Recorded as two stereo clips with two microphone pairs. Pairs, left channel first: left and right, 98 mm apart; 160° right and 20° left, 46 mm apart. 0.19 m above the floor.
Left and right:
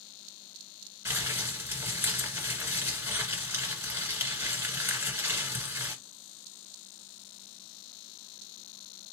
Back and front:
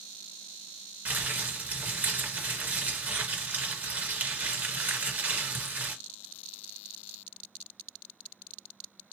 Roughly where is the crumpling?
Ahead right.